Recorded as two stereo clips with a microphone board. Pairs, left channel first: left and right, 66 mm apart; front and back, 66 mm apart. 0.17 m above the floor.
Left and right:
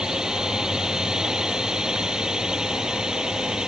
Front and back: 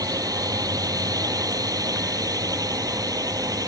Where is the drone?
170° right.